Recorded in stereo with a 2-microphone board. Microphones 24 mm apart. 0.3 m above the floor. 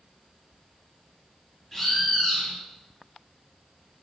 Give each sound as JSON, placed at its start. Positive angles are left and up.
{"t": 1.7, "sound": "a bird", "side_deg": 15, "distance_m": 1.9}